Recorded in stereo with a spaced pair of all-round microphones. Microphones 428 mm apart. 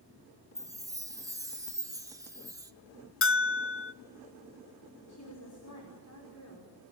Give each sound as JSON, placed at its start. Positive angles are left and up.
{"t": 0.6, "sound": "a chime", "side_deg": -10, "distance_m": 1.4}
{"t": 3.2, "sound": "a bell", "side_deg": 30, "distance_m": 0.5}
{"t": 5.1, "sound": "a woman speaking", "side_deg": 40, "distance_m": 5.5}